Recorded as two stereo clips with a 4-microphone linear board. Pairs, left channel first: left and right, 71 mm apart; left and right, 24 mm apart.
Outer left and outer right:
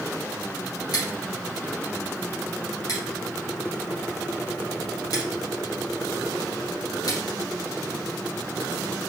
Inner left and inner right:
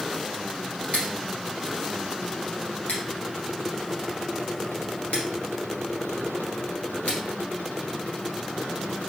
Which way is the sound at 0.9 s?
65° left (ahead or behind).